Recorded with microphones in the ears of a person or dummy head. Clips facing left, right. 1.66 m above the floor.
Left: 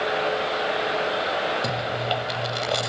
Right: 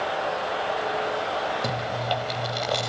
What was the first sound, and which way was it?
Chewing, 5° left (ahead or behind).